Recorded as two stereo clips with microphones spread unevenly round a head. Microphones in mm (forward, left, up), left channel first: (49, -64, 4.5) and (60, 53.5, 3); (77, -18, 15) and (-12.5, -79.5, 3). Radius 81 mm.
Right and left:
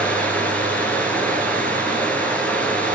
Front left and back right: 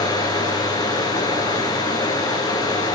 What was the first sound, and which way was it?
Running water, 15° right.